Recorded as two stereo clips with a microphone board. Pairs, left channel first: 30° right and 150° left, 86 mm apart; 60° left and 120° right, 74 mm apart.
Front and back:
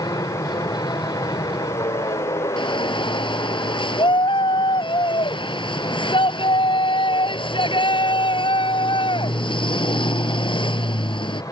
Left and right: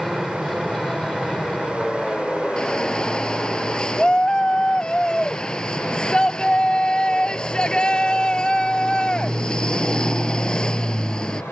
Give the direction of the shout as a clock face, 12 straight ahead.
1 o'clock.